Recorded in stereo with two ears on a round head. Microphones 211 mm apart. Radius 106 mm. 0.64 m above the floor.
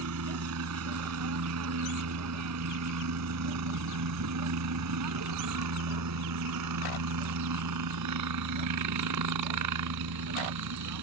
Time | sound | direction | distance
0.0 | a helicopter | 65° right (ahead or behind) | ?